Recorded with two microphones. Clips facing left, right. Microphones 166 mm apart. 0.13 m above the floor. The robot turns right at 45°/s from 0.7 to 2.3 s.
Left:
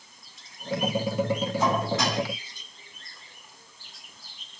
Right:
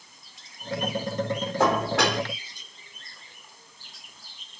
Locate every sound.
1.6 s dishes clattering: 75° right (ahead or behind), 3.5 m; by 2.2 s 70° right (ahead or behind), 3.5 m